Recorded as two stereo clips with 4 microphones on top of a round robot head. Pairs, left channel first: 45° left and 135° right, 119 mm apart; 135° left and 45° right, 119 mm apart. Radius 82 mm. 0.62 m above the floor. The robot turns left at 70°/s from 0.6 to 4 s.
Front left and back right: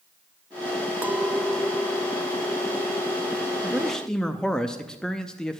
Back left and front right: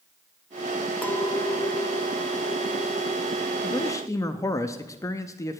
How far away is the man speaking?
About 0.6 m.